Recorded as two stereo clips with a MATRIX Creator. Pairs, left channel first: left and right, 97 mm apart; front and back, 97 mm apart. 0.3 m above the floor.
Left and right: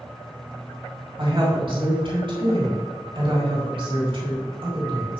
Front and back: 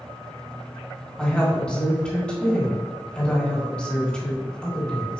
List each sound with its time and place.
1.2 s a woman speaking: 80° right, 3 m